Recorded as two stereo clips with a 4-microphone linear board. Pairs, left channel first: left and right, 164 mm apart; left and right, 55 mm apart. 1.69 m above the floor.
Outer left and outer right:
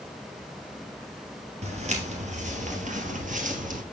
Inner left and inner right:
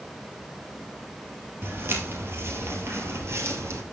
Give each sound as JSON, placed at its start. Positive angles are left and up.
{"t": 1.6, "sound": "footsteps", "side_deg": -40, "distance_m": 2.5}